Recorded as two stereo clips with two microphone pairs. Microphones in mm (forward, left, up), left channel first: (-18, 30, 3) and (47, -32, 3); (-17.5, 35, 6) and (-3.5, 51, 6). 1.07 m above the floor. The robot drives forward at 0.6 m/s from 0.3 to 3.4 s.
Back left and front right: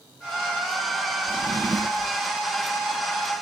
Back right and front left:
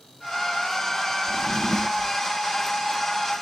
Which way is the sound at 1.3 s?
70° right.